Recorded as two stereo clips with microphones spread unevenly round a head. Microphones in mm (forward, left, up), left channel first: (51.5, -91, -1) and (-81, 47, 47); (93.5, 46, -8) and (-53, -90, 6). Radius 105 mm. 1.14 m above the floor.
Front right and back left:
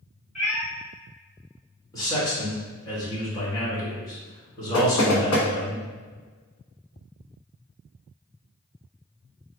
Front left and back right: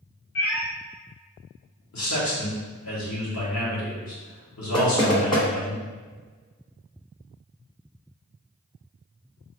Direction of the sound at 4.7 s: 25° right.